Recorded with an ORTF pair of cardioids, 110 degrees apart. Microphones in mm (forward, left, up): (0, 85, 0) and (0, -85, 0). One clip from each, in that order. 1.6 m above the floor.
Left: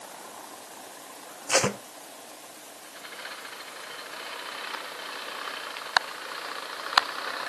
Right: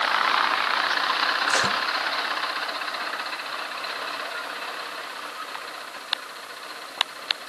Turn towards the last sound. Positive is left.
turn(degrees=30)